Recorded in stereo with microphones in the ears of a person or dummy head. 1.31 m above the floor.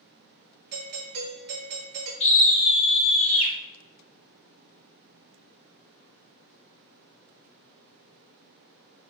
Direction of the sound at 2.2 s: 35° left (ahead or behind).